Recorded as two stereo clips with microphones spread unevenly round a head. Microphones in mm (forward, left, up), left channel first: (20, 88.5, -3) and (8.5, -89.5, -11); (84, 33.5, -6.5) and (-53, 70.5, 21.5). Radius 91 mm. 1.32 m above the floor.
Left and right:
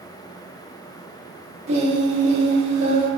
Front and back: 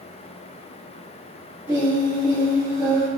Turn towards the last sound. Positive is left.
turn(degrees=-135)